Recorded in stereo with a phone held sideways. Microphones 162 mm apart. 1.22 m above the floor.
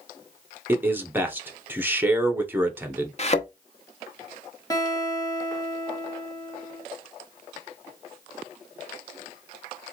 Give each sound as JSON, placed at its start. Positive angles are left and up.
{"t": 0.7, "sound": "a man speaking", "side_deg": -10, "distance_m": 0.7}
{"t": 3.2, "sound": "a thud", "side_deg": 40, "distance_m": 0.8}
{"t": 4.7, "sound": "a guitar", "side_deg": 25, "distance_m": 1.3}